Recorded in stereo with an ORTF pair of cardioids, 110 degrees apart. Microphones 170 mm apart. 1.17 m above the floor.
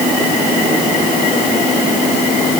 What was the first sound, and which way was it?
Only background noise.